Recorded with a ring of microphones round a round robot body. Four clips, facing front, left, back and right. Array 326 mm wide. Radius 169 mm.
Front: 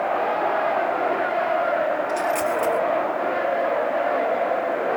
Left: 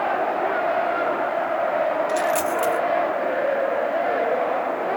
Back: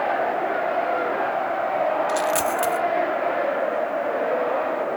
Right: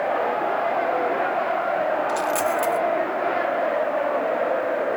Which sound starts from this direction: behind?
A dropped coin, at 2.1 s.